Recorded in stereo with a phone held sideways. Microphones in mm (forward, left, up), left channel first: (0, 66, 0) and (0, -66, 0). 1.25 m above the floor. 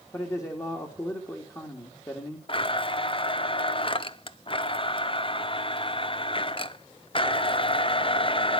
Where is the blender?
40° left (ahead or behind), 0.7 m.